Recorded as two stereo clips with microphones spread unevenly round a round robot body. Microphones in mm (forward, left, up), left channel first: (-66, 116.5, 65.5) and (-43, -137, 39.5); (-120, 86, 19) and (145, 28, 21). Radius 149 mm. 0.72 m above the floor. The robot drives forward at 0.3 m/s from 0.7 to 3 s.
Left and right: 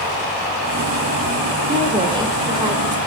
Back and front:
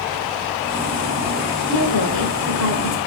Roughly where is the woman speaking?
Behind right.